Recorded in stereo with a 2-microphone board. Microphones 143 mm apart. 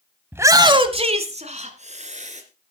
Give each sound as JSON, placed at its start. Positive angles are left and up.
{"t": 0.3, "sound": "a shout", "side_deg": -15, "distance_m": 0.9}